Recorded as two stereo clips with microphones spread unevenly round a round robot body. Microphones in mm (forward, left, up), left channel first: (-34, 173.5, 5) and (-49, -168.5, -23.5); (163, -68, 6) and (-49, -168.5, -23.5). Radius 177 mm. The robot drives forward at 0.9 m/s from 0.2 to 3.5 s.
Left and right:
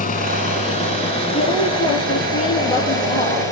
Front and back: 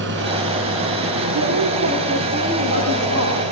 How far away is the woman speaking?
About 7 m.